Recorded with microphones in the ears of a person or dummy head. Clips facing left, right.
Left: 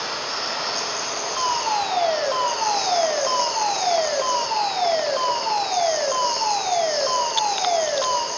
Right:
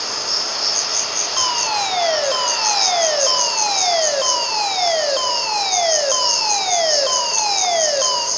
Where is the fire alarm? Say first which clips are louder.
Right 1 dB; 40° right (ahead or behind), 3 m.